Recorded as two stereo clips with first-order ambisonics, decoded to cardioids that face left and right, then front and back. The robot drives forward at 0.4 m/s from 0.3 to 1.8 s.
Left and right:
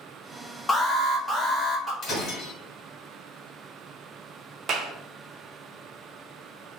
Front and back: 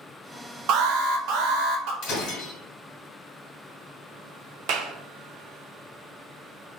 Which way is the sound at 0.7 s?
165° left.